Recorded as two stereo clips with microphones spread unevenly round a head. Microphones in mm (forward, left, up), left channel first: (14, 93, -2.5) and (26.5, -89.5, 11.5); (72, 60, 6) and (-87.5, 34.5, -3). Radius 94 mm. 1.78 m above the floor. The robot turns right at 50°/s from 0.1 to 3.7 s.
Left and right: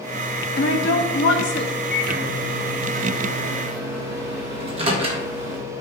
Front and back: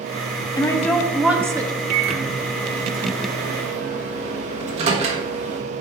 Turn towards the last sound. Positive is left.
turn(degrees=-130)